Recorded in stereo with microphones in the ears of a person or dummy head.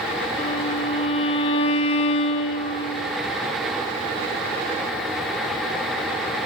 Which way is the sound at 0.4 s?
30° left (ahead or behind).